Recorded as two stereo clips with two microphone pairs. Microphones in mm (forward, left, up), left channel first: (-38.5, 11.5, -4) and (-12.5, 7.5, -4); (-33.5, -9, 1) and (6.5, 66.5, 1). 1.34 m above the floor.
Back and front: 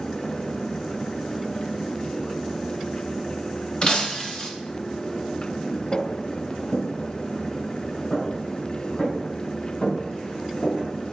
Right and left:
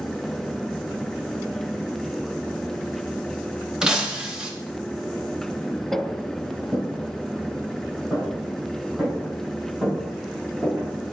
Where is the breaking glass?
140° left, 1.0 m.